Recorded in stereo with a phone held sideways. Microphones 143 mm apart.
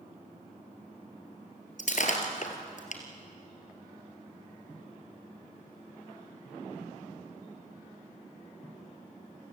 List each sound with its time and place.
1.8 s breaking glass: 60° left (ahead or behind), 3 m